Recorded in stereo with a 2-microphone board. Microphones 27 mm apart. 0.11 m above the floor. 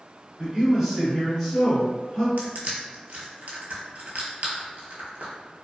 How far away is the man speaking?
About 1.4 m.